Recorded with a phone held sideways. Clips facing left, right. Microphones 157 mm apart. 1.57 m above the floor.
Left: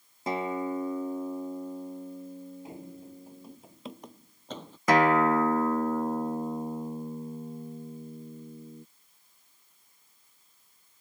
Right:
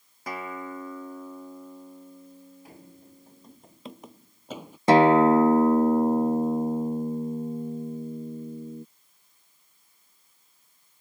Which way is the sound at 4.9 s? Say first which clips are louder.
Right 6 dB; 30° right (ahead or behind).